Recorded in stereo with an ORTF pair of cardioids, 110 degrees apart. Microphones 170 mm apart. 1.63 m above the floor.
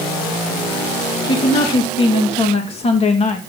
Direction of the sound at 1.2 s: 25° left.